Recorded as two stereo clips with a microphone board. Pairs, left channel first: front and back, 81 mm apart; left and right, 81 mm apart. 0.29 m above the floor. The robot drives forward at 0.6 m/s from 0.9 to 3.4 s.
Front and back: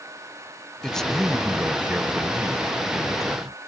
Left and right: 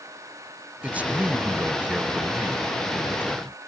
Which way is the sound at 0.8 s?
65° right.